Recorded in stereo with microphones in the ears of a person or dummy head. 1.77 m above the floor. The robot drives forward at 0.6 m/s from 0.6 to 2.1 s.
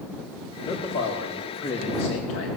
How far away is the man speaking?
About 2.5 m.